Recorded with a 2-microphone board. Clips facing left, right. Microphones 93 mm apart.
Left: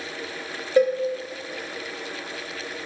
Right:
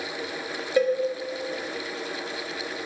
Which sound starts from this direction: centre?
A cowbell, at 0.8 s.